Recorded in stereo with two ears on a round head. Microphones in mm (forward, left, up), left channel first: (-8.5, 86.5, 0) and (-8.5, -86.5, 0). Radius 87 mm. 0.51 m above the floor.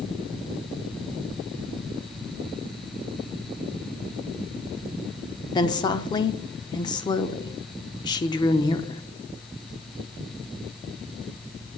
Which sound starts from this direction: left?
A woman speaking, at 5.5 s.